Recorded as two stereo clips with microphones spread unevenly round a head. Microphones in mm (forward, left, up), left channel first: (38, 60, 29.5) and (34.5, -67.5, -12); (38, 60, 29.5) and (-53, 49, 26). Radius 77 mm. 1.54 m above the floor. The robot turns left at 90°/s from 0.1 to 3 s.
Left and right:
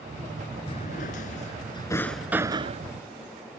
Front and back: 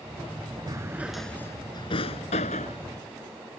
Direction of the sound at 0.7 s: 140° left.